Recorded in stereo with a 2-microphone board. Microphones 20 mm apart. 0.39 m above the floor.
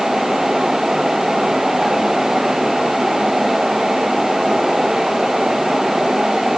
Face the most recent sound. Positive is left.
No sound to turn to.